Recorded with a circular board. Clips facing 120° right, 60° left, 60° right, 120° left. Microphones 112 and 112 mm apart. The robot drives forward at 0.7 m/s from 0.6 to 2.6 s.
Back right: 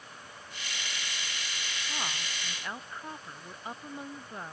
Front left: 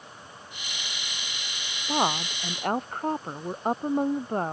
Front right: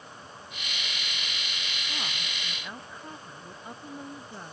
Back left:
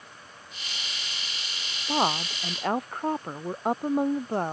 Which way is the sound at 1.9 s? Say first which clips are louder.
Front left 15 dB, back left 17 dB; 95° left.